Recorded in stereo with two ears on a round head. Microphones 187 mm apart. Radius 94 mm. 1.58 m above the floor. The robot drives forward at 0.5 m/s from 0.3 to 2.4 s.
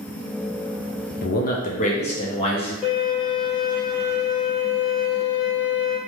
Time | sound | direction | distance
1.2 | a man speaking | 45° left (ahead or behind) | 0.6 m
2.8 | a violin | 5° right (ahead or behind) | 1.4 m